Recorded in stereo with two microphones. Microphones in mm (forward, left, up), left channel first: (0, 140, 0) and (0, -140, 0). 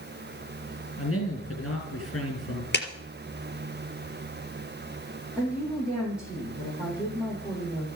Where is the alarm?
I don't hear an alarm.